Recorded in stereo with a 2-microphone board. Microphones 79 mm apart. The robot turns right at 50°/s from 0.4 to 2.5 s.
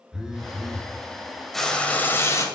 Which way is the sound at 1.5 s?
5° left.